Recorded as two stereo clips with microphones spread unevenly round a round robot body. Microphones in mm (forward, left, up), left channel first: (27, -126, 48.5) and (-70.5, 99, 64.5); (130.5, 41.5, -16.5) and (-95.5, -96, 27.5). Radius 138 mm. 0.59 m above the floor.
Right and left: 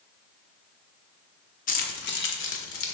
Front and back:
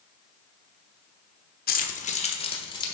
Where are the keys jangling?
15° right, 1.1 m; by 3.0 s 40° right, 1.6 m.